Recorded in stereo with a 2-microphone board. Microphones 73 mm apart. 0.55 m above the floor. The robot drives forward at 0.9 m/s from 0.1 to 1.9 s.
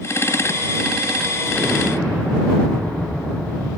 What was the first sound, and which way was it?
An explosion, 20° left (ahead or behind).